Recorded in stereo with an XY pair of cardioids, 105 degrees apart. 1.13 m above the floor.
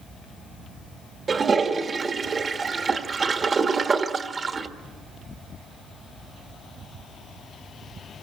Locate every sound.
1.3 s a toilet flushing: 35° right, 1.4 m